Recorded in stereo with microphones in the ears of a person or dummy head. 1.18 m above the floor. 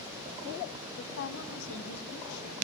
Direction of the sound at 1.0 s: 50° left (ahead or behind).